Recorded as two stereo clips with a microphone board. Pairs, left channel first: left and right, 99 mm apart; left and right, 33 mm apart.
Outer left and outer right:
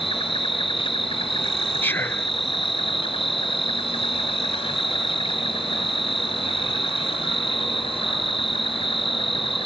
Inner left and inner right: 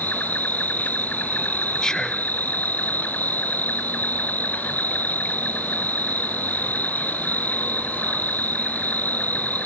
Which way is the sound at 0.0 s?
60° left (ahead or behind).